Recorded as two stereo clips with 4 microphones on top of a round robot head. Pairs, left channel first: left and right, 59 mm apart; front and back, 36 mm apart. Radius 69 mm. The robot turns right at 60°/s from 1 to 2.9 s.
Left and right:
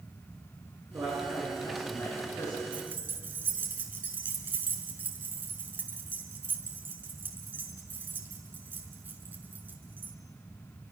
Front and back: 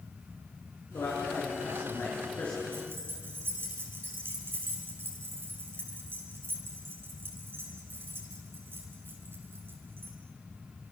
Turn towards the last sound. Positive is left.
turn(degrees=-150)